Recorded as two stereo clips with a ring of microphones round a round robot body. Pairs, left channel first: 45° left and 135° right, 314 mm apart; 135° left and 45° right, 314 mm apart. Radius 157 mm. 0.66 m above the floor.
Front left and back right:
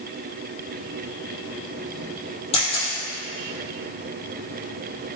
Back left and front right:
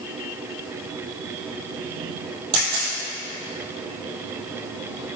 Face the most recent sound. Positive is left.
turn(degrees=-30)